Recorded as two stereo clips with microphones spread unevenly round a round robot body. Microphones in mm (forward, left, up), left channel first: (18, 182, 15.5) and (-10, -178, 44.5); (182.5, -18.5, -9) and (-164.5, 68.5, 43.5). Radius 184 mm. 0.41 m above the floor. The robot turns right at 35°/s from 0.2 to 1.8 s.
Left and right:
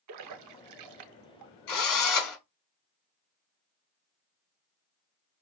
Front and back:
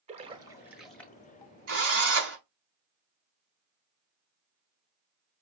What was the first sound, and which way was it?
A splash, 120° right.